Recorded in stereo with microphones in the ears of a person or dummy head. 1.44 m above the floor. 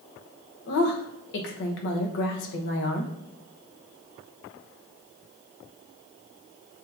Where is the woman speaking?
65° left (ahead or behind), 1.0 m.